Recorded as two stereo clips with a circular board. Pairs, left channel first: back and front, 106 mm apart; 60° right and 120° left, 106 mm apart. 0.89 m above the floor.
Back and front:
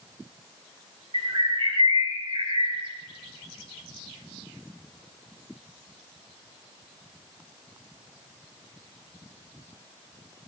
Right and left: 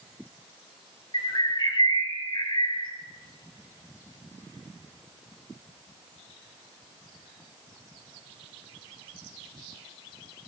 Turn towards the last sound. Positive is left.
turn(degrees=-20)